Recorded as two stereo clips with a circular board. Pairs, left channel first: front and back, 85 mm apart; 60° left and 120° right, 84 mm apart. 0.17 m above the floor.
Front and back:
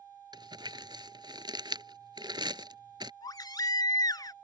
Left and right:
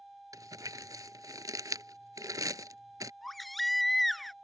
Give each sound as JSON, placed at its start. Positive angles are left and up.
{"t": 0.3, "sound": "crumpling", "azimuth_deg": -160}
{"t": 3.2, "sound": "a baby crying", "azimuth_deg": -30}